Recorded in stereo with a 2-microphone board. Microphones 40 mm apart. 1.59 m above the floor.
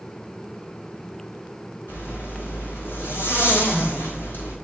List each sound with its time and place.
1.9 s a zipper: 65° left (ahead or behind), 3.5 m